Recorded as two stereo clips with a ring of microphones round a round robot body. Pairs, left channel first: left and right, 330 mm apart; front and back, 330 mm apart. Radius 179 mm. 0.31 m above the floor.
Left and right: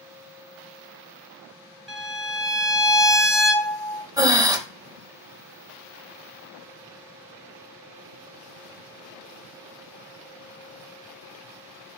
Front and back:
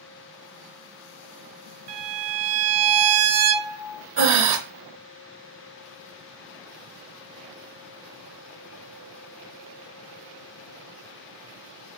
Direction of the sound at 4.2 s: 165° right.